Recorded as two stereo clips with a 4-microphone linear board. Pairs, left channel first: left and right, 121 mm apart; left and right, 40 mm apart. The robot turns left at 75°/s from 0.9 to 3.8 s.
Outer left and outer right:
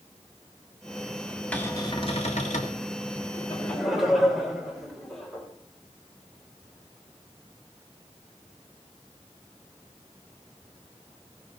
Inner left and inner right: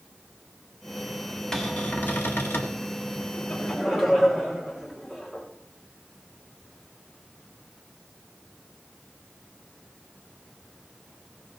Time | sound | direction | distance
1.5 | a cupboard door | 170° left | 2 m
3.3 | laughter | 35° left | 5 m